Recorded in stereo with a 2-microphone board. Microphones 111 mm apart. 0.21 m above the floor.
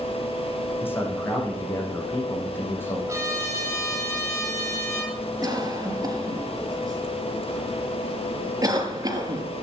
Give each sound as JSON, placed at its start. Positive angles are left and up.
{"t": 0.8, "sound": "a man speaking", "side_deg": 20, "distance_m": 10.0}
{"t": 3.1, "sound": "a trumpet", "side_deg": -25, "distance_m": 9.5}
{"t": 5.4, "sound": "a cough", "side_deg": -35, "distance_m": 5.0}